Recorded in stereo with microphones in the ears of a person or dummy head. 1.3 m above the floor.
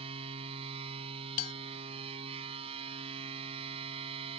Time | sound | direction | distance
0.0 | a machine running | 30° right (ahead or behind) | ?
1.4 | a bell | 45° left (ahead or behind) | ?